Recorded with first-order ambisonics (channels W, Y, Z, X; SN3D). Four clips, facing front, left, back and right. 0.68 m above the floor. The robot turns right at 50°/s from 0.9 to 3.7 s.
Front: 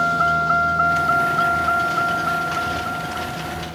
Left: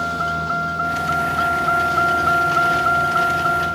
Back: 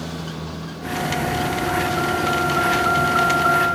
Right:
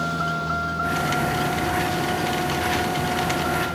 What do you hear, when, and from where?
0.0 s a vehicle: 15° left; by 3.8 s 155° left